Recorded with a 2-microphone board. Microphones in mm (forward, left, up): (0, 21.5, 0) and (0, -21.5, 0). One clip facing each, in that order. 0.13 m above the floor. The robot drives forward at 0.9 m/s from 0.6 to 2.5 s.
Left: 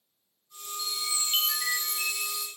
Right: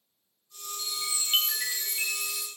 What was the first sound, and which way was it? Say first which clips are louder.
A chime: left 2 dB; 30° right (ahead or behind).